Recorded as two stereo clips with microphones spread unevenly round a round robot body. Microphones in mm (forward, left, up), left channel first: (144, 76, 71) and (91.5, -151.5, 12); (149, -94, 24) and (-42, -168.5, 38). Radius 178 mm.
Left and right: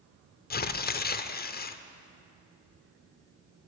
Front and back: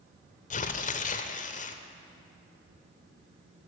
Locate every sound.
0.5 s tearing paper: 25° left, 0.6 m